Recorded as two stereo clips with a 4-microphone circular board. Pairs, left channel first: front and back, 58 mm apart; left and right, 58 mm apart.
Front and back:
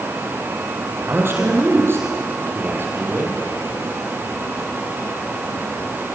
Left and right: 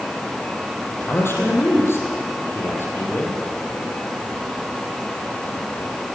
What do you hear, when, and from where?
1.0 s a man speaking: 135° left, 4.5 m